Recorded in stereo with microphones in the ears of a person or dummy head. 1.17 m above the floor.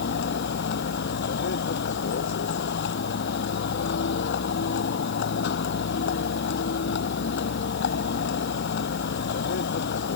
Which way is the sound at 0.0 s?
55° left (ahead or behind).